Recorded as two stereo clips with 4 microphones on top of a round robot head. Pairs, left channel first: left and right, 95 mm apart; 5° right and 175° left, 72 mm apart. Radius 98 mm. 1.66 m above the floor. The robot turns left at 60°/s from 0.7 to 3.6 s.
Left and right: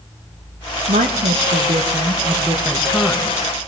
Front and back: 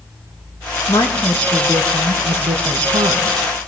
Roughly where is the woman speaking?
Ahead right.